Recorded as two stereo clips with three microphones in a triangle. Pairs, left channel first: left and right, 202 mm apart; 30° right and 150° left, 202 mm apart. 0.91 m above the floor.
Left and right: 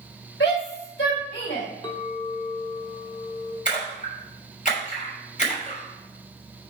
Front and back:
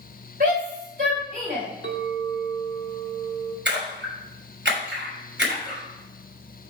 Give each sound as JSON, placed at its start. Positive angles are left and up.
{"t": 0.4, "sound": "a shout", "azimuth_deg": 110, "distance_m": 3.5}
{"t": 1.8, "sound": "a clink", "azimuth_deg": 155, "distance_m": 1.2}
{"t": 3.6, "sound": "a splash", "azimuth_deg": 135, "distance_m": 3.0}